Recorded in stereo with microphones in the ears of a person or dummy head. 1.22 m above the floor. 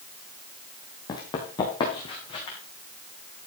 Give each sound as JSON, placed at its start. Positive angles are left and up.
{"t": 1.1, "sound": "running footsteps", "side_deg": 25, "distance_m": 2.5}